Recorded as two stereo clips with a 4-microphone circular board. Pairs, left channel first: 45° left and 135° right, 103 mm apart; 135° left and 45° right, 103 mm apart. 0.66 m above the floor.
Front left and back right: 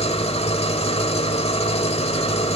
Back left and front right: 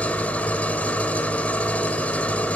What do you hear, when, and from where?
0.0 s an engine running: 60° left, 1.7 m